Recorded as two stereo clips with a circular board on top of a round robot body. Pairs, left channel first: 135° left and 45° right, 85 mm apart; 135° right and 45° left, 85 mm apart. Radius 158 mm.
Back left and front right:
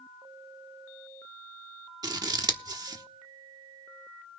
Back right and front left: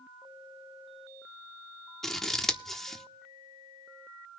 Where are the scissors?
50° right, 1.2 m.